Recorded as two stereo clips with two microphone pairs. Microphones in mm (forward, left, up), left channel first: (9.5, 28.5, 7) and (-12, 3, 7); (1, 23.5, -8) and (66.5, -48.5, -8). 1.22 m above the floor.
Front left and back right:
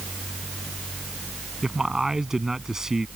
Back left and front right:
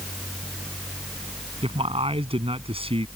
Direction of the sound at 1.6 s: 55° right.